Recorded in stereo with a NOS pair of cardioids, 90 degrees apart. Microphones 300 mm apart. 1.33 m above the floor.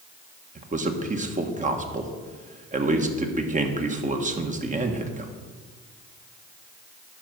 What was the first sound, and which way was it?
A man speaking, 25° right.